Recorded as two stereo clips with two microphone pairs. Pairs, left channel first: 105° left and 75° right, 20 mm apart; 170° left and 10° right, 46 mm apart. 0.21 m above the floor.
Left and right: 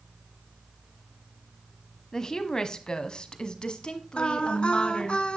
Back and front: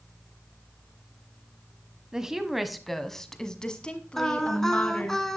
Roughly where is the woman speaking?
Ahead left.